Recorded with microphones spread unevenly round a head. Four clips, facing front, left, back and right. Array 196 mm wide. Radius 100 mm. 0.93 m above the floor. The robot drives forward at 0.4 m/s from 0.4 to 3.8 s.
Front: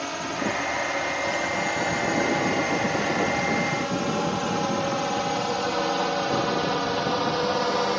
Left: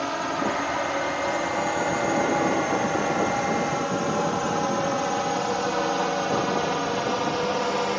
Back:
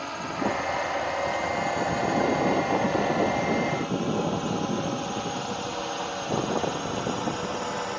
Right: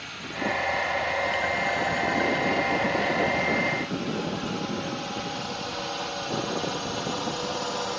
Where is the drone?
75° left; by 8.0 s 35° left.